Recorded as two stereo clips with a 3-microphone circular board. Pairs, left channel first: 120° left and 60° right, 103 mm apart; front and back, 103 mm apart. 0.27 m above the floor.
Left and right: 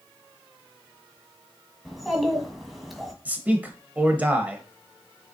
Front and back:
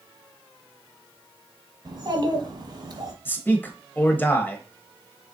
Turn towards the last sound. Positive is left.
turn(degrees=-20)